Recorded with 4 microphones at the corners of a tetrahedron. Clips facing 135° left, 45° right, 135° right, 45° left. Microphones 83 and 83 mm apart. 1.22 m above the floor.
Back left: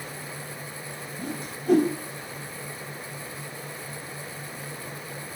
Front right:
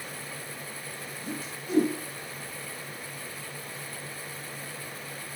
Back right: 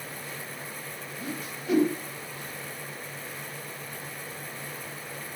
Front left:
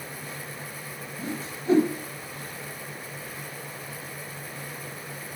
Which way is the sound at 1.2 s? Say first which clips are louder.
Back left 4 dB, front left 3 dB; 105° left.